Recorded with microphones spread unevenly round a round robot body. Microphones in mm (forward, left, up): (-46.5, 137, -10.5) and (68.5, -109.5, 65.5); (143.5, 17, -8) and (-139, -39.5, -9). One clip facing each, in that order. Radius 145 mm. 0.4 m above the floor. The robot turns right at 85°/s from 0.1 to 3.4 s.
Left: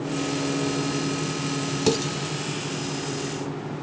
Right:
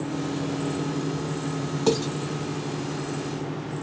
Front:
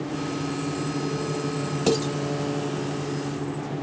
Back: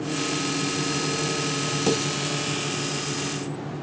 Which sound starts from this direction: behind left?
Dishes clattering, at 1.9 s.